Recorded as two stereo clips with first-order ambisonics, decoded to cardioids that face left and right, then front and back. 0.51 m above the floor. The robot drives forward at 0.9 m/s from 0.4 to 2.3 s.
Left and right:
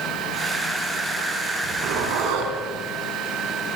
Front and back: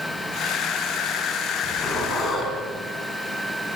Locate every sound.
1.6 s a zipper: 60° right, 6 m; by 2.5 s 65° right, 6 m